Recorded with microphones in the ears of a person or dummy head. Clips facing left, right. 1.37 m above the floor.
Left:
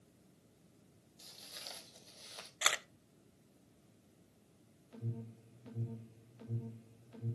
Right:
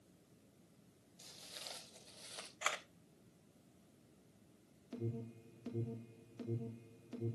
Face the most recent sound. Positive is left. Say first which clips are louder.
# right 3 dB
turn(degrees=-65)  # may be behind; listen again after turning